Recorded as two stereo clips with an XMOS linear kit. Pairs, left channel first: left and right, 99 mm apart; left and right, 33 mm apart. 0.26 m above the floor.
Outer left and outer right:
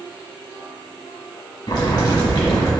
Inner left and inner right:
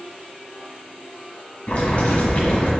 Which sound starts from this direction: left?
Boiling, at 1.7 s.